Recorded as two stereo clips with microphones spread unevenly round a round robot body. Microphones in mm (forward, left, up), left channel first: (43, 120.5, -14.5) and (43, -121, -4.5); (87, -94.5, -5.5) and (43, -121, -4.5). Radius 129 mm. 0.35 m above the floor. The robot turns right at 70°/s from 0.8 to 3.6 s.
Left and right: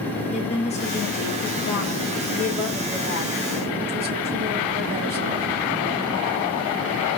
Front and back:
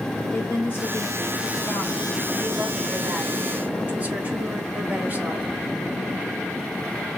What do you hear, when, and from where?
0.3 s a woman speaking: 45° left, 1.4 m; by 5.5 s 115° right, 1.4 m